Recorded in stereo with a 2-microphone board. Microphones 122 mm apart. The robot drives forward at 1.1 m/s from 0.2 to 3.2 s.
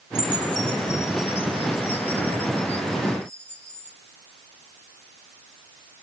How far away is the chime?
About 1.0 m.